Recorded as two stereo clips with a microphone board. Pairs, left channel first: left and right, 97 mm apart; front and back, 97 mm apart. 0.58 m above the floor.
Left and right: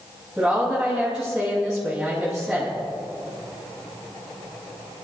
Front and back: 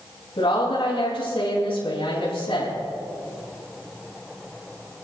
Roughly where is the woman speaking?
Ahead.